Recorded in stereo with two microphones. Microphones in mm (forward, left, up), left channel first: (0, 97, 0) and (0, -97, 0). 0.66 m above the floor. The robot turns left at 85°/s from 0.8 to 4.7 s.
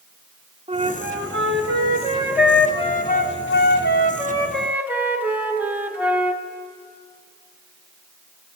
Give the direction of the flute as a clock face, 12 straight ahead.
1 o'clock.